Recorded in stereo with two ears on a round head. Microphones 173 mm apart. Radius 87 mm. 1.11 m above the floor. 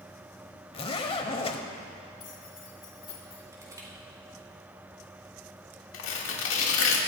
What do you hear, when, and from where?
0.7 s a zipper: 30° left (ahead or behind), 1.0 m
2.2 s keys jangling: 30° left (ahead or behind), 2.5 m
3.5 s crushing: 20° right (ahead or behind), 4 m
5.9 s tearing paper: 75° left (ahead or behind), 2.0 m